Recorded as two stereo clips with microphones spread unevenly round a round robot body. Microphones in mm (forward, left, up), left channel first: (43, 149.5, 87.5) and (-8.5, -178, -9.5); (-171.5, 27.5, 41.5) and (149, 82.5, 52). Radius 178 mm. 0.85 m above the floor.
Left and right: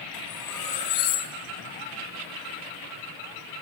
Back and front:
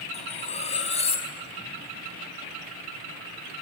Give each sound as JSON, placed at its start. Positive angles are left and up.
{"t": 0.1, "sound": "cutlery clinking", "azimuth_deg": 120, "distance_m": 4.0}